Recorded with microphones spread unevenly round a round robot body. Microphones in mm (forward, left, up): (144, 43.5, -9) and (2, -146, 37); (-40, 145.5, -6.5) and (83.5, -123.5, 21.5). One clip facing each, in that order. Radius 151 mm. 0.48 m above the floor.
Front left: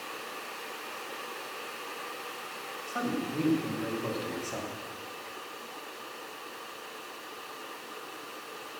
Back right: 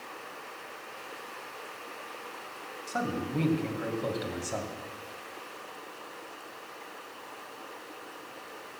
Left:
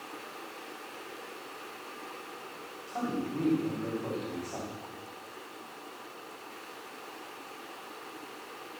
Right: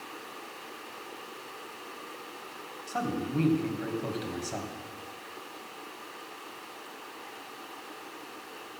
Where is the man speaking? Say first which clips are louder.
Even, right 1 dB; 105° right, 2.5 m.